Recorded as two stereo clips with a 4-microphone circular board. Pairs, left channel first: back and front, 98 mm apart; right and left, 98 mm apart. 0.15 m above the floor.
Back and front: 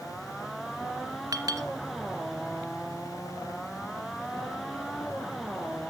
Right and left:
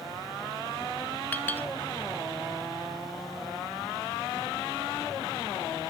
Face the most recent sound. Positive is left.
turn(degrees=-25)